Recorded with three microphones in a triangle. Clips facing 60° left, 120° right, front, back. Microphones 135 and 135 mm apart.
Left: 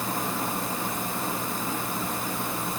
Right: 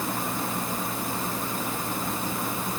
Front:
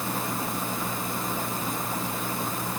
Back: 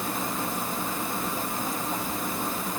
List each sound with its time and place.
Only background noise.